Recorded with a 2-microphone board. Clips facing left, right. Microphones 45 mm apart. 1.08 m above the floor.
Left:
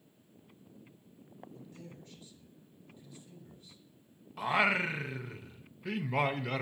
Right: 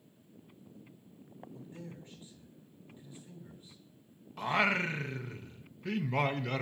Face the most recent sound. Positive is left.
turn(degrees=5)  # may be behind; listen again after turning